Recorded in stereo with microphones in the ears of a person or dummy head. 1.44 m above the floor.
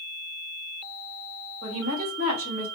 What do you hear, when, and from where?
1.6 s a woman speaking: 75° right (ahead or behind), 3 m